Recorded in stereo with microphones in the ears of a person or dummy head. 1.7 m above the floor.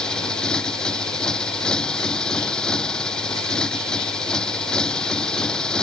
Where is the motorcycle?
5° left (ahead or behind).